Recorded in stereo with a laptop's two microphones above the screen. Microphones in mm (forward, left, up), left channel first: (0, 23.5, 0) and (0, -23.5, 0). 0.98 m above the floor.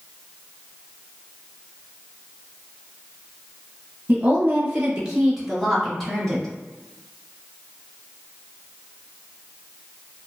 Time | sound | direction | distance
4.1 | a woman speaking | 25° right (ahead or behind) | 0.8 m